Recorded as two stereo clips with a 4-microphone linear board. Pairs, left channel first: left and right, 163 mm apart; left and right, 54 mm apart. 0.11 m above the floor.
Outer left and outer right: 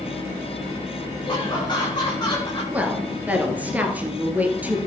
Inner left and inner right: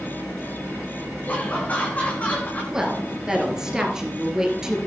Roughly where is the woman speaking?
Centre.